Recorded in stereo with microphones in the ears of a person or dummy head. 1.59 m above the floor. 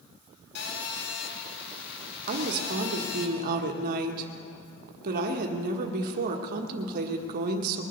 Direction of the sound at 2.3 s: 55° right (ahead or behind).